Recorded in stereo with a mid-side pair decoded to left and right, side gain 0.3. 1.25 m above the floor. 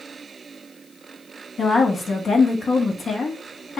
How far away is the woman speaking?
About 1.7 m.